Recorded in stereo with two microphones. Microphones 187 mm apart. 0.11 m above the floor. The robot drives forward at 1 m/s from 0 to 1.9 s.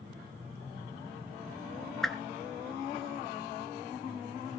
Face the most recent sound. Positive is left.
turn(degrees=0)  # may be behind; listen again after turning